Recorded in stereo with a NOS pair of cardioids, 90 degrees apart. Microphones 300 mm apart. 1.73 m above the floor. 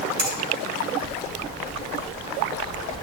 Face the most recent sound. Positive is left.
turn(degrees=-65)